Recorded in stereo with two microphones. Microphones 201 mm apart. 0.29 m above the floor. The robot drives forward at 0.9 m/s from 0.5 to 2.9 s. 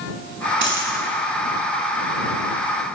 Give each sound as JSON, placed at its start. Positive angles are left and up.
{"t": 0.6, "sound": "a dropped coin", "side_deg": -60, "distance_m": 1.5}